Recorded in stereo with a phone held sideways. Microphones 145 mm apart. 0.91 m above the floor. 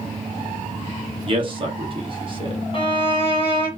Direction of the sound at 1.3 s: 35° right (ahead or behind).